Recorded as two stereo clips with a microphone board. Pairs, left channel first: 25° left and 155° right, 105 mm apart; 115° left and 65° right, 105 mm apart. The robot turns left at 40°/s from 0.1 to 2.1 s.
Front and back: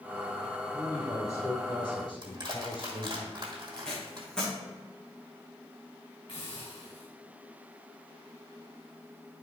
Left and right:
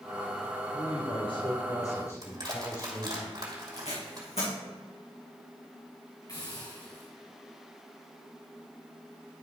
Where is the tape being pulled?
105° left, 2.5 m.